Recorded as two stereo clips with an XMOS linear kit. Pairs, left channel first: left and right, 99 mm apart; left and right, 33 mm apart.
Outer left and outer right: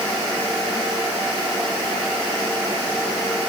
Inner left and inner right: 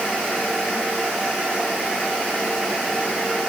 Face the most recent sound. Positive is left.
No sound to turn to.